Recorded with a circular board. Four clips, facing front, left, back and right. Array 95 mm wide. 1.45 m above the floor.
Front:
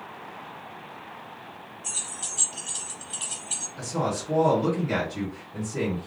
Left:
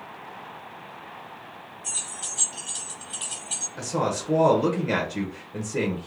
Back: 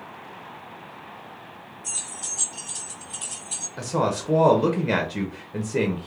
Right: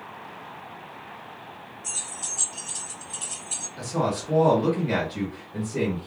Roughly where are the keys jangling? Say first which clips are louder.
Even, even; ahead left.